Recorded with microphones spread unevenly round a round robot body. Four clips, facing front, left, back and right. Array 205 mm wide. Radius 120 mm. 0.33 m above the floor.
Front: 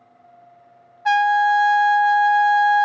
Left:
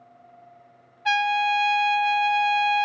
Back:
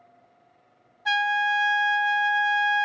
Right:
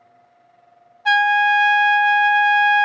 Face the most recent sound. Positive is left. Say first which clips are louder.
# right 6 dB, front 8 dB
turn(degrees=-30)